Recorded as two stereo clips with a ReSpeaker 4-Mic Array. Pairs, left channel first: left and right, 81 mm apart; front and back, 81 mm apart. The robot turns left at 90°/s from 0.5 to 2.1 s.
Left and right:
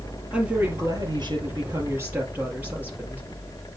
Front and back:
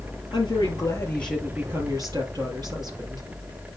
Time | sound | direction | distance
0.3 | a woman speaking | 15° right | 3.5 m